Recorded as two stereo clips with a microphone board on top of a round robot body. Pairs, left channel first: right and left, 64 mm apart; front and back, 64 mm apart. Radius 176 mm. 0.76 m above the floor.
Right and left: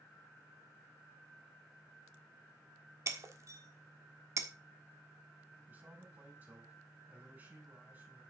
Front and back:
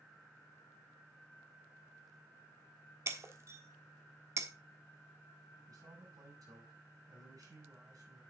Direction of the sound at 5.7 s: 150° left.